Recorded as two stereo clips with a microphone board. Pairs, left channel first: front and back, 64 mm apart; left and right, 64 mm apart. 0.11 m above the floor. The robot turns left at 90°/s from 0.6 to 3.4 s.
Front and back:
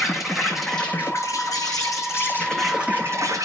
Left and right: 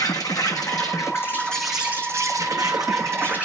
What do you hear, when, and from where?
0.0 s an insect: 95° left, 1.3 m; by 3.5 s 160° right, 1.3 m